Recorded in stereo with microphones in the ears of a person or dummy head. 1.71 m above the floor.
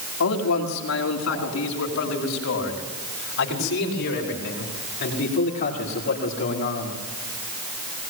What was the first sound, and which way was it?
A man speaking, 80° left.